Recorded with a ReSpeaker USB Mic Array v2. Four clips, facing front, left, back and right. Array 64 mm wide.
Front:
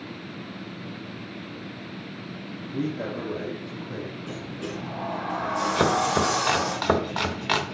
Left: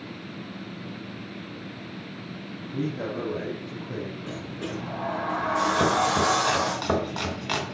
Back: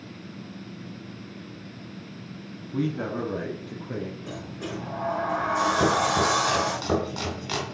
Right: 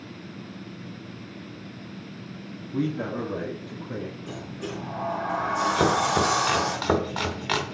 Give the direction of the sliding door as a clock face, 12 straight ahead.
8 o'clock.